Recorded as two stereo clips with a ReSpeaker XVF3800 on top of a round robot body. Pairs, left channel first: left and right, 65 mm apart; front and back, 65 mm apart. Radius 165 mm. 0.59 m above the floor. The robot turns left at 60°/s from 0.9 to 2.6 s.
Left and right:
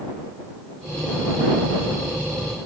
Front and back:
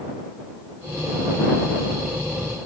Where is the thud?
I don't hear a thud.